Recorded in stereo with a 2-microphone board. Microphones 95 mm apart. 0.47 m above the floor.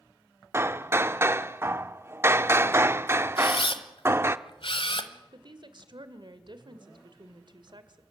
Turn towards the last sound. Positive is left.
turn(degrees=-55)  # may be behind; listen again after turning